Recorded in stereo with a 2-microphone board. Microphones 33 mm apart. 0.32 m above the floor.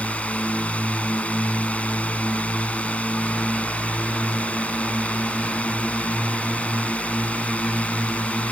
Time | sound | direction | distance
0.0 | a drone | 45° left (ahead or behind) | ?